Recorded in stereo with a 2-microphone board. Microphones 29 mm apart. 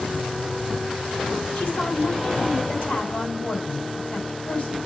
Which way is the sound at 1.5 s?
60° left (ahead or behind).